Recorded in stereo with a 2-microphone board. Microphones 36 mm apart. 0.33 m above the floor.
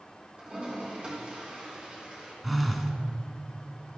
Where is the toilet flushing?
30° right (ahead or behind), 3.5 m.